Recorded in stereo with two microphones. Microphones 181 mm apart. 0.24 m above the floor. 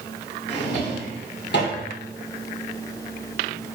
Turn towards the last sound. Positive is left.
turn(degrees=70)  # may be behind; listen again after turning